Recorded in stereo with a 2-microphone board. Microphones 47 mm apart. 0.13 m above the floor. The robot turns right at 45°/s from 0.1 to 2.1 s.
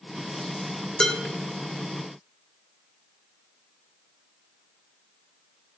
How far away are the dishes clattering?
About 1.2 m.